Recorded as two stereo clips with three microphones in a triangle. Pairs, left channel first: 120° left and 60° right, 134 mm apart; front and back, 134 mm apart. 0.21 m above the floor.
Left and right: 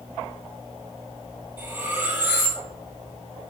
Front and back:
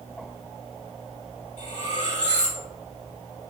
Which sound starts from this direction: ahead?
Cutlery clinking, at 1.6 s.